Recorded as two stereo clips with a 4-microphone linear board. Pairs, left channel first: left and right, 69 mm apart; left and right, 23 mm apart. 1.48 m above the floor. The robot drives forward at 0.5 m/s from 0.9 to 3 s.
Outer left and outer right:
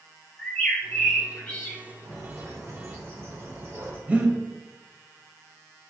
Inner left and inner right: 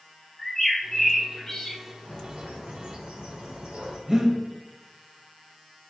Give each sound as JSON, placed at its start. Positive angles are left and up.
{"t": 0.4, "sound": "a bird", "side_deg": 20, "distance_m": 1.1}
{"t": 2.0, "sound": "a bird", "side_deg": -60, "distance_m": 0.9}
{"t": 4.1, "sound": "breathing", "side_deg": -25, "distance_m": 0.6}